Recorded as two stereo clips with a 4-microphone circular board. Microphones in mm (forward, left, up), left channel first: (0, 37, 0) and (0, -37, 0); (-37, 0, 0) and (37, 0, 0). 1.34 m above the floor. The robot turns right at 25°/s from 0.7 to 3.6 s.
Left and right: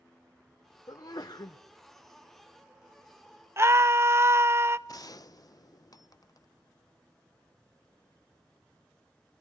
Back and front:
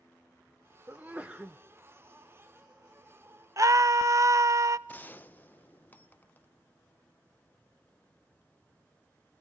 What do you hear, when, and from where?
0.9 s a sneeze: 60° left, 0.7 m; by 1.6 s 80° left, 0.7 m
3.6 s a scream: 40° right, 0.7 m
4.9 s a gunshot: 120° left, 0.5 m